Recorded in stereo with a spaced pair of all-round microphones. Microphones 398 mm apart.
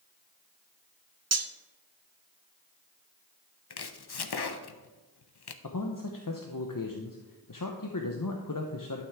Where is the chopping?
70° left (ahead or behind), 0.6 m.